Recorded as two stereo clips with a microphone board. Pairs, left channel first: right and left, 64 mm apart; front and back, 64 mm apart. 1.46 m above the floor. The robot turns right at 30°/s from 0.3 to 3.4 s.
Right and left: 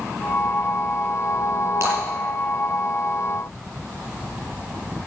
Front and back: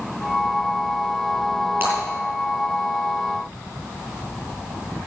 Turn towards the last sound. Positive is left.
turn(degrees=170)